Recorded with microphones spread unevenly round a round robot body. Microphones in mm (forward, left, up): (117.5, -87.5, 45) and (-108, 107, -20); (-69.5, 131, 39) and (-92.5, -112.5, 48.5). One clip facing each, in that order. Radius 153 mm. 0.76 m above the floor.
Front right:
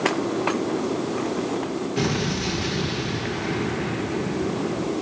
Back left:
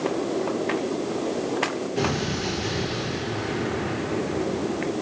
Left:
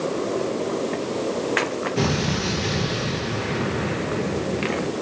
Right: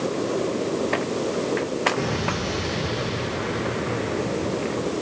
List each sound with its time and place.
2.0 s an explosion: 30° left, 5.5 m